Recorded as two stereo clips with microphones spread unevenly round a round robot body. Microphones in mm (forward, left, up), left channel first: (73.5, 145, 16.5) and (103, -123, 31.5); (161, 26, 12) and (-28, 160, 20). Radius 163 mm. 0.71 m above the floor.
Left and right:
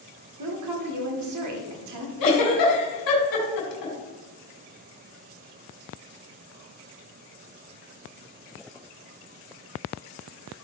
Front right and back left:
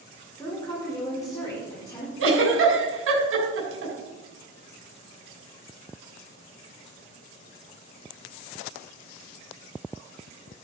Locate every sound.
0.4 s a woman speaking: 115° right, 1.8 m
2.2 s a giggle: 115° left, 2.5 m